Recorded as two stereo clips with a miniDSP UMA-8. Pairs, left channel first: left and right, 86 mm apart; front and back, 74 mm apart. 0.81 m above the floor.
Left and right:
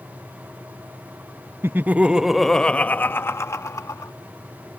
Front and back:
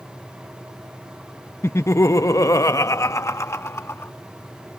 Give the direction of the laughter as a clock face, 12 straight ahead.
1 o'clock.